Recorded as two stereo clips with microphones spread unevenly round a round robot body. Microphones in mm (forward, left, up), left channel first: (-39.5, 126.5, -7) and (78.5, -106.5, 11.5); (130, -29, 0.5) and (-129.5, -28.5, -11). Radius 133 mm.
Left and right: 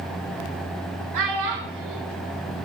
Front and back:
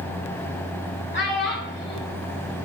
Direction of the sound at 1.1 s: 50° right.